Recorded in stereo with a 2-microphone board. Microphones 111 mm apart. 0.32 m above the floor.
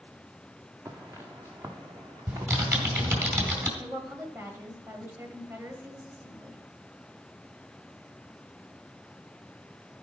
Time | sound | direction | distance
0.8 | footsteps | 25° right (ahead or behind) | 1.4 m
2.3 | typing on a keyboard | 20° right (ahead or behind) | 3 m
3.8 | a woman speaking | 20° right (ahead or behind) | 1.9 m